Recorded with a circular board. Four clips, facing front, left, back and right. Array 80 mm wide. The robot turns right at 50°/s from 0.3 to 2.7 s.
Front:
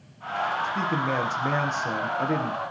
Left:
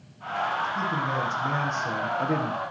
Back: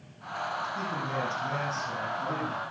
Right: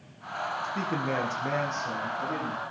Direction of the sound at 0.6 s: 55° right.